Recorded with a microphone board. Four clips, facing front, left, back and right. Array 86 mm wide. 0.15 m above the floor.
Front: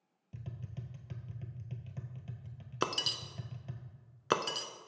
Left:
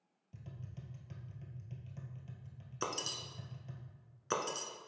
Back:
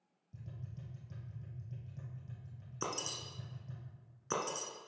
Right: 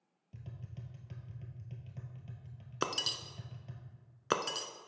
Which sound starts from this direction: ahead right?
Breaking glass, at 2.8 s.